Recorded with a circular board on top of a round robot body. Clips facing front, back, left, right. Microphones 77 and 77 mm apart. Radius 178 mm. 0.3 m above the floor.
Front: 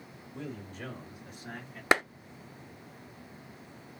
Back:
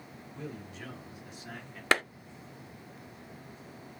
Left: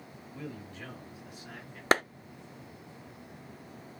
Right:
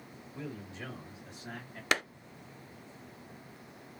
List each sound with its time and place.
0.3 s a man speaking: 15° right, 2 m; by 1.8 s 55° right, 1.8 m
1.9 s a clap: 65° left, 0.8 m